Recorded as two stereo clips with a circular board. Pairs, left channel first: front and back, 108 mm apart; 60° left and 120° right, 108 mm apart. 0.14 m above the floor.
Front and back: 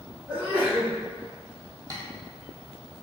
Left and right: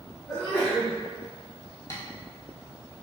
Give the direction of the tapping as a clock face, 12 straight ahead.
8 o'clock.